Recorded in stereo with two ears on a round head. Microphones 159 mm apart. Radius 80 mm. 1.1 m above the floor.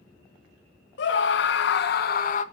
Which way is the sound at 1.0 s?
70° left (ahead or behind).